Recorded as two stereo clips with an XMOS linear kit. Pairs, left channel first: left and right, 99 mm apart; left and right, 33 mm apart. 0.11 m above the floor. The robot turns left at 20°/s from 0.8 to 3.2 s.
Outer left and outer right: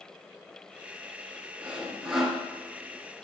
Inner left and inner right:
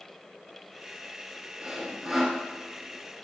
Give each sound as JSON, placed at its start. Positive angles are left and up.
{"t": 1.6, "sound": "sawing", "side_deg": -10, "distance_m": 1.6}